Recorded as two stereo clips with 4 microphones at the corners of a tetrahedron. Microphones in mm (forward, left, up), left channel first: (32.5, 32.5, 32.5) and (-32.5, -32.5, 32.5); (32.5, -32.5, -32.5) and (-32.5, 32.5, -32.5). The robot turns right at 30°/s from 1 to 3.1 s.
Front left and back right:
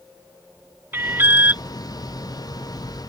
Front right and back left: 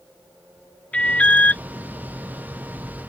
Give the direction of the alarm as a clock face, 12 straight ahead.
4 o'clock.